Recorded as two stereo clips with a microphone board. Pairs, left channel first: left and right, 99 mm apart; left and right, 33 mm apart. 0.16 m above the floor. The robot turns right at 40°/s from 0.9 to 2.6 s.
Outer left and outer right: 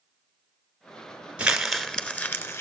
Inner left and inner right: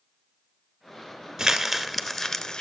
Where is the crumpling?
10° right (ahead or behind), 0.9 m; by 2.6 s 30° left (ahead or behind), 0.9 m.